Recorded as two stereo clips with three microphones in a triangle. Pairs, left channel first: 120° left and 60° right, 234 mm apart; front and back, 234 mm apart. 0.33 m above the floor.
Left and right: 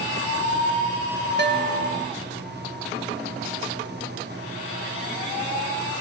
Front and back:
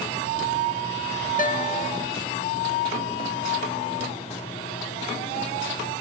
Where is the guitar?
40° right, 0.6 m.